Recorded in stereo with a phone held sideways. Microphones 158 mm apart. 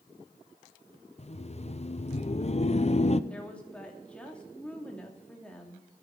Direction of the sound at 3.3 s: 5° left (ahead or behind).